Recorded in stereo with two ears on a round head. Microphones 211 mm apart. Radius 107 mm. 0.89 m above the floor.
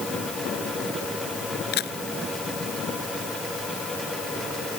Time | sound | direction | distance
1.7 | a camera shutter | 45° left (ahead or behind) | ?